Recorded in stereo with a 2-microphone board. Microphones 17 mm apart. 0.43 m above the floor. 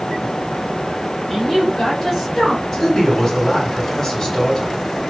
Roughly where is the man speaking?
Left.